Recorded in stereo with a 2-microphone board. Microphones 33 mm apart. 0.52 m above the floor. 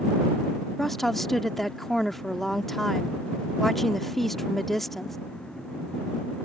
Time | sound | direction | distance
0.8 | a woman speaking | 5° left (ahead or behind) | ?